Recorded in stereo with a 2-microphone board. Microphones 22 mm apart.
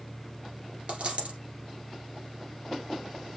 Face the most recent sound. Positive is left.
turn(degrees=-65)  # may be behind; listen again after turning